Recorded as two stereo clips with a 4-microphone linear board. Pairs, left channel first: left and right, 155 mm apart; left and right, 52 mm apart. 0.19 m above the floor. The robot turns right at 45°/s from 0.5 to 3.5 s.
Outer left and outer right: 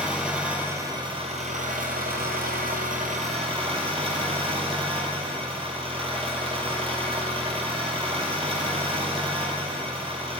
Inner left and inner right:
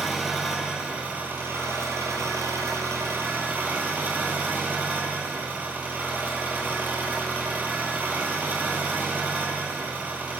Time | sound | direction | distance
0.0 | an engine running | 175° right | 1.2 m